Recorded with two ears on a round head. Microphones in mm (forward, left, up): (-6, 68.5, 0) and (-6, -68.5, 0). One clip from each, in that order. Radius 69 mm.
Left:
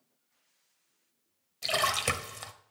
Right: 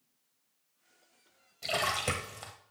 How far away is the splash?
About 0.9 m.